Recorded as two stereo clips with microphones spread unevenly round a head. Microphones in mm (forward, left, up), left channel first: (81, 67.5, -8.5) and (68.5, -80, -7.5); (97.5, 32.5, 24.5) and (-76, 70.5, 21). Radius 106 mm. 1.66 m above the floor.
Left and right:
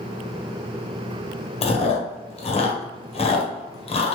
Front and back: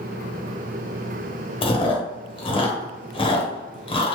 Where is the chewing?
45° left, 0.8 m.